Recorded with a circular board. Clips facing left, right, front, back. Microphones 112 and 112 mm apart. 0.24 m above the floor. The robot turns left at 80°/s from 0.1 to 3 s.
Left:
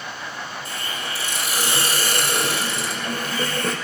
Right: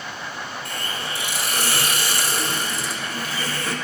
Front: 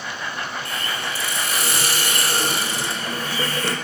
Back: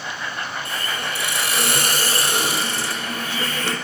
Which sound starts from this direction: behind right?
A hiss, at 0.7 s.